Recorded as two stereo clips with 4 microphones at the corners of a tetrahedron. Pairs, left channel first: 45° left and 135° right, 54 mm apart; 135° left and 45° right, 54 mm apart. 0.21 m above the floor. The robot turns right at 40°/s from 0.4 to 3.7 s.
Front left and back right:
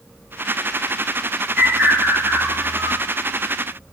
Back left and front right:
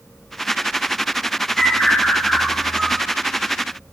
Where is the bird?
165° right, 1.1 m; by 2.9 s 110° right, 1.1 m.